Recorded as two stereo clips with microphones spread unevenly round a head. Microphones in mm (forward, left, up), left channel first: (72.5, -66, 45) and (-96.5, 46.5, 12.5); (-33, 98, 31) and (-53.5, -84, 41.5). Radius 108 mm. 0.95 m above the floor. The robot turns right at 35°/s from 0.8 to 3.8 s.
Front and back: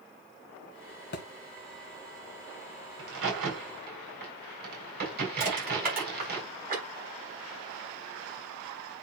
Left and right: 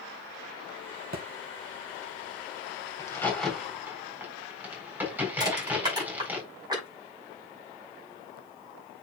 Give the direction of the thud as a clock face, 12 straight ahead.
2 o'clock.